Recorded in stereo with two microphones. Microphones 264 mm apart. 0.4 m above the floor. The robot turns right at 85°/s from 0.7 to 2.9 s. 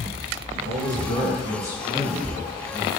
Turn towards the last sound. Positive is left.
turn(degrees=95)